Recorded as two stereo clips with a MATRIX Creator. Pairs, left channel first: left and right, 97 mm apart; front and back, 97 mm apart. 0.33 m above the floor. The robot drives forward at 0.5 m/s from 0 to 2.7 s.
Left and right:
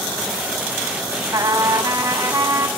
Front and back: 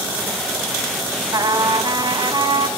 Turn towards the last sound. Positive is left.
turn(degrees=-150)